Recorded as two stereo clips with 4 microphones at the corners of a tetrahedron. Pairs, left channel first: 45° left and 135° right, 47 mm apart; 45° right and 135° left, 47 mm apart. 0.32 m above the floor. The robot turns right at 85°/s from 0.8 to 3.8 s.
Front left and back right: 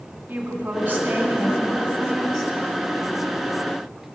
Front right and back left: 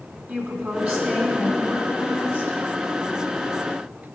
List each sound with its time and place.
0.3 s a woman speaking: 175° left, 3 m; by 2.6 s 35° right, 3 m